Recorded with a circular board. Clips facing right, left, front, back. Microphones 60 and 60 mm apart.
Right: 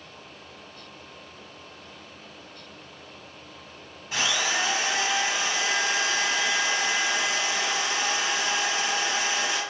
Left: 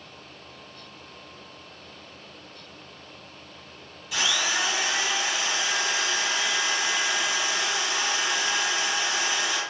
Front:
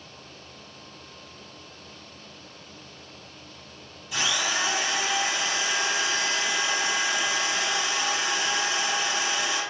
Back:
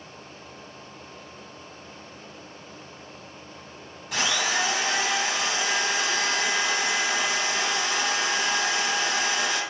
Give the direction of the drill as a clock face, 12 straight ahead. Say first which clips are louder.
Even, back 2 dB; 5 o'clock.